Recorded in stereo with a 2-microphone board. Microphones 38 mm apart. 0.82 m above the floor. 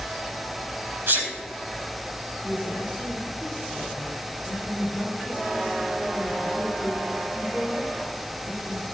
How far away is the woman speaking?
About 5 m.